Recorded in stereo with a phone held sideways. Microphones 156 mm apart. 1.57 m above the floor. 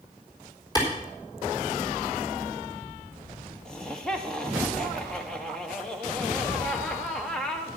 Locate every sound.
0.8 s a clap: 25° left (ahead or behind), 4 m
3.6 s laughter: 5° left (ahead or behind), 1.0 m